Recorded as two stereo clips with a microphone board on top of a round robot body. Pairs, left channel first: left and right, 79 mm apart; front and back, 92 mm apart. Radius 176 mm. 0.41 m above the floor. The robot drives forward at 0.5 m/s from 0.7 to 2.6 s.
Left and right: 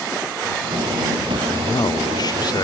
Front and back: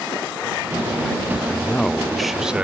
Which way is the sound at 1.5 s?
70° left.